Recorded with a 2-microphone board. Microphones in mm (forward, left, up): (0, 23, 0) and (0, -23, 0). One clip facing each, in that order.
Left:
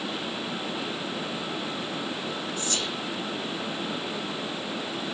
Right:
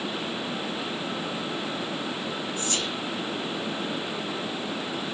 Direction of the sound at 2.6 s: 40° right (ahead or behind).